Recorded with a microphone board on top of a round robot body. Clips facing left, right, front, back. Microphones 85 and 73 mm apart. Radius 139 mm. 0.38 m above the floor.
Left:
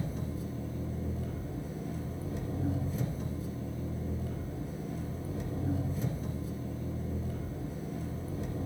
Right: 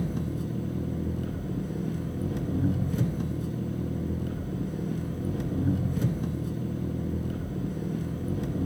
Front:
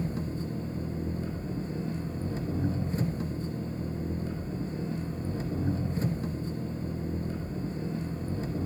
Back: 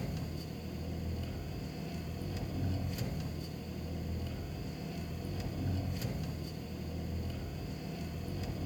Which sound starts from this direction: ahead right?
An engine running, at 0.0 s.